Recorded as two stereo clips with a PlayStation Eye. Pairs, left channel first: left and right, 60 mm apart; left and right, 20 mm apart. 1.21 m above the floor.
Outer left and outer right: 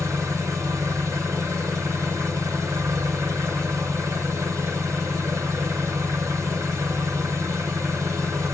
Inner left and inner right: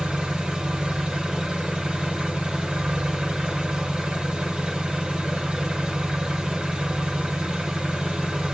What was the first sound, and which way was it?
An engine running, 55° right (ahead or behind).